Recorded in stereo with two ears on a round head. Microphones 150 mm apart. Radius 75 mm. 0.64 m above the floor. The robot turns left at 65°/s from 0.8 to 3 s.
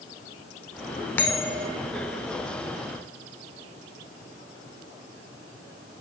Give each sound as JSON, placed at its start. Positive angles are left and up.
{"t": 1.2, "sound": "a bell", "azimuth_deg": 10, "distance_m": 0.6}